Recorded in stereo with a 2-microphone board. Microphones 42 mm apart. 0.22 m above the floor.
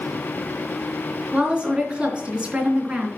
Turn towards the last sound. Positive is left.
turn(degrees=-25)  # may be behind; listen again after turning